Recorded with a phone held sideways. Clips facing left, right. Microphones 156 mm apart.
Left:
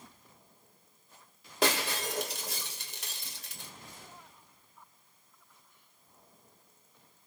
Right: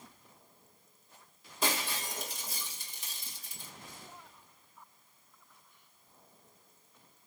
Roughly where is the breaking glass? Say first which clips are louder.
Left 5 dB; left.